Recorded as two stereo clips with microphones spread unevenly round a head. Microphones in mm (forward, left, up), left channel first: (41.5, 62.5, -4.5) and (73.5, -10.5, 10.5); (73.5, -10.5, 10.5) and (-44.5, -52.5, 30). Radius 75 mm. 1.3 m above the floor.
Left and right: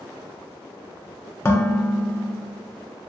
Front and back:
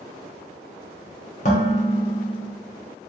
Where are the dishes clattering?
55° left, 0.5 m.